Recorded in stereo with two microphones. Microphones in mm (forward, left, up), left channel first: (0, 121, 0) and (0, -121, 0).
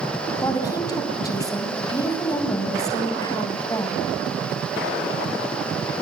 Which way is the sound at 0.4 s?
15° left (ahead or behind).